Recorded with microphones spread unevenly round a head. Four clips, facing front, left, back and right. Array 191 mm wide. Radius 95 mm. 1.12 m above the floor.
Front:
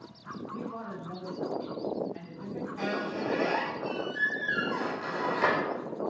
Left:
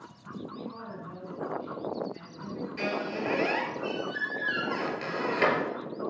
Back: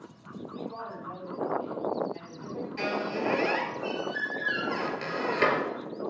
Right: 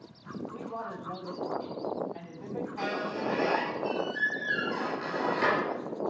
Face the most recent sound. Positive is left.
turn(degrees=145)